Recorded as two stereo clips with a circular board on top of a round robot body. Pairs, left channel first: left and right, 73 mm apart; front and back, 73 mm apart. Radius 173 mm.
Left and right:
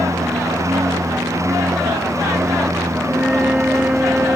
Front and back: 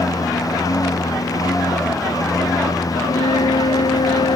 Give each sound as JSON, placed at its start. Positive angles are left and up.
{"t": 0.0, "sound": "a lawn mower", "azimuth_deg": -40}
{"t": 3.1, "sound": "a flute", "azimuth_deg": -10}